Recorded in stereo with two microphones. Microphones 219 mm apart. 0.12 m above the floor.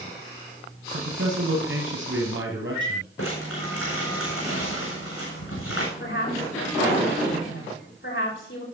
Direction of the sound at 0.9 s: 60° right (ahead or behind).